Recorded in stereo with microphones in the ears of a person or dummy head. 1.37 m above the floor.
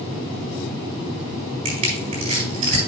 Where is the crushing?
35° right (ahead or behind), 3.5 m.